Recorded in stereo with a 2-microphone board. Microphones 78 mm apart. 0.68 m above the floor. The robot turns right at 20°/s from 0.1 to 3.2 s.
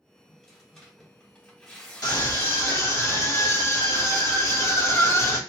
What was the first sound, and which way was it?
Tearing paper, 5° left (ahead or behind).